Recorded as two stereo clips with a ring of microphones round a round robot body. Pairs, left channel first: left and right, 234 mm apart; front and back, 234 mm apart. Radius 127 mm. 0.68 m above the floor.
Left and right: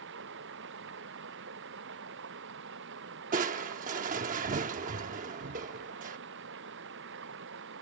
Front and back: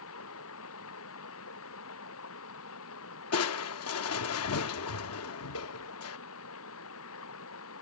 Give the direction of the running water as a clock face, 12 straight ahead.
1 o'clock.